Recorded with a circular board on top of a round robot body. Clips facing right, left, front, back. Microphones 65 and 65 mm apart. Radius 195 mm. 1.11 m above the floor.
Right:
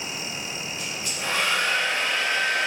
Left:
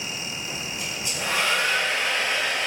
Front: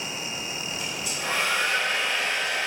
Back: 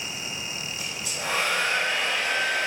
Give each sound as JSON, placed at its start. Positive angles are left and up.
{"t": 0.8, "sound": "a hair dryer", "azimuth_deg": 170, "distance_m": 0.6}